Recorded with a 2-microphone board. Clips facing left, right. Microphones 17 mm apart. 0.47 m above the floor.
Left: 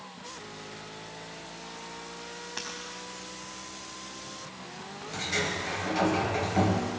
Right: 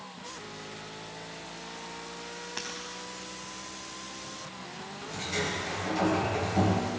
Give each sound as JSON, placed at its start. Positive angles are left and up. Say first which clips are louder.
{"t": 2.6, "sound": "breaking glass", "louder": "even", "side_deg": -5, "distance_m": 5.0}
{"t": 5.1, "sound": "a sliding door", "louder": "left 2 dB", "side_deg": 10, "distance_m": 3.0}